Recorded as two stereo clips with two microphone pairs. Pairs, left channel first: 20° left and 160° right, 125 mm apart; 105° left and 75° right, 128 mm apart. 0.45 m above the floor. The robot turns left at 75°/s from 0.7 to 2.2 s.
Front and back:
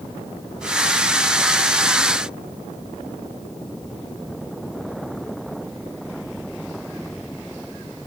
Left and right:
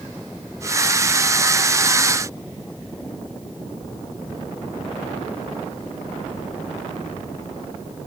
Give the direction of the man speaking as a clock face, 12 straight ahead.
No man speaking in this recording.